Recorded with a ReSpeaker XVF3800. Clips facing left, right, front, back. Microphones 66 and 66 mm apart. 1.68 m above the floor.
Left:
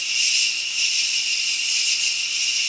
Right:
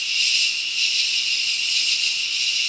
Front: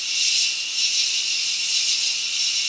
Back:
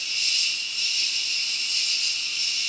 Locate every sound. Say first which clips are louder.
0.0 s an insect: right 1 dB, front 2 dB; 10° left, 1.2 m